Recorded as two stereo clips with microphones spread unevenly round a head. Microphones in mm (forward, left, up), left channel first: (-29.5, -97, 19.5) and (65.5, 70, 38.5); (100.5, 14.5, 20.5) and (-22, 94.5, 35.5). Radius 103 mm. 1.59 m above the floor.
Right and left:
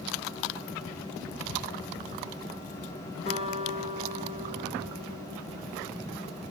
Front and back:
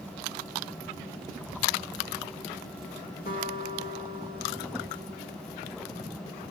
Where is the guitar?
65° right, 1.3 m.